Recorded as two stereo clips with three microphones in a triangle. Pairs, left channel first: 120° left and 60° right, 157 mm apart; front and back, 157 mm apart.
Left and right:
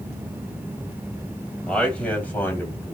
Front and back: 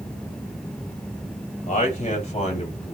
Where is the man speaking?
35° left, 2.5 m; by 3.0 s 45° left, 3.5 m.